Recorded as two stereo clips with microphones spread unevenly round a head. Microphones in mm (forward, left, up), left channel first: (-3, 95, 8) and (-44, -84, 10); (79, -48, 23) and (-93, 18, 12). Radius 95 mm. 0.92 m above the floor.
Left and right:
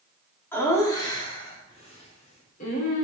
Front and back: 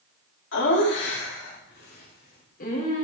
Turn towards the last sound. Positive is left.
turn(degrees=30)